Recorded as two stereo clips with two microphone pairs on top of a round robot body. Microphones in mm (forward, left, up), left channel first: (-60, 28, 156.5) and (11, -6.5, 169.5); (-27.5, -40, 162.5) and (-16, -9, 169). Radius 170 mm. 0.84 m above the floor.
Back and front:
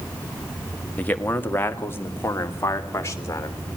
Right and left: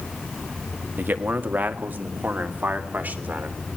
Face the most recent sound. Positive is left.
turn(degrees=100)